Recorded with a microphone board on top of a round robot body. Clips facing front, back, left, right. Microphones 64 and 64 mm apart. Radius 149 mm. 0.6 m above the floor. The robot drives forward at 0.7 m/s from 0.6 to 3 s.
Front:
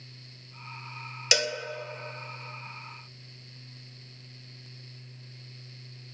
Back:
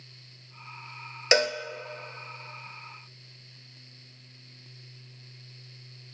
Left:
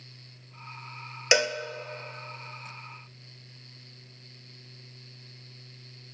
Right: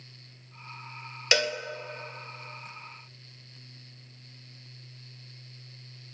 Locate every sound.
1.3 s a cowbell: 150° left, 0.6 m; by 1.6 s 160° left, 0.7 m